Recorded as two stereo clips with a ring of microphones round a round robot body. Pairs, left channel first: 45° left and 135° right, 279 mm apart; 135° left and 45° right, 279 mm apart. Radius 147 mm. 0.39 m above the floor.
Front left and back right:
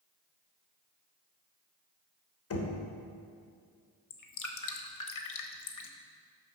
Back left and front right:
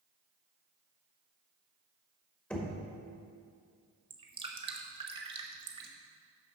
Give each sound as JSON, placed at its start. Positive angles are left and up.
{"t": 2.5, "sound": "knocking", "azimuth_deg": 50, "distance_m": 1.4}
{"t": 4.1, "sound": "dripping", "azimuth_deg": 25, "distance_m": 0.9}